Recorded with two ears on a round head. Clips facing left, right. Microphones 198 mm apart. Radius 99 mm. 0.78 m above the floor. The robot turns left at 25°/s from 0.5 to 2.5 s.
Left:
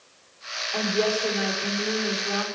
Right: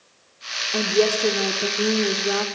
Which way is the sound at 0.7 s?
45° right.